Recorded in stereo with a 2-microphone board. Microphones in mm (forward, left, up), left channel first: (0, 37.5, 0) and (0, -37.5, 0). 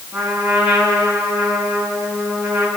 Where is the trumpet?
15° right (ahead or behind), 6.5 m.